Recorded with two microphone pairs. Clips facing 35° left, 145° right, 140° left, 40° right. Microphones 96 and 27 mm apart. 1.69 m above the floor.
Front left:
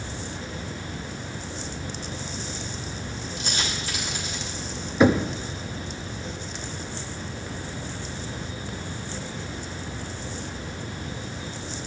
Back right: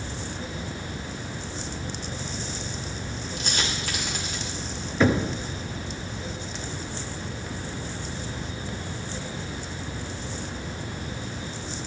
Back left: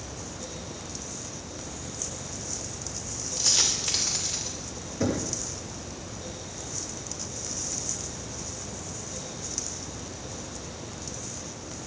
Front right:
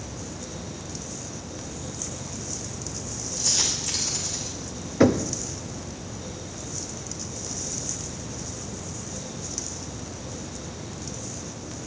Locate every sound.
3.4 s a dropped coin: 160° right, 2.5 m
5.0 s knocking: 40° right, 0.7 m